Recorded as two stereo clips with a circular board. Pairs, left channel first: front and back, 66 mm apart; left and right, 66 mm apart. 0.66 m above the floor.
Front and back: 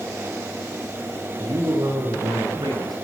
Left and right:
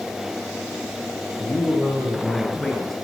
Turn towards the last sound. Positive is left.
turn(degrees=175)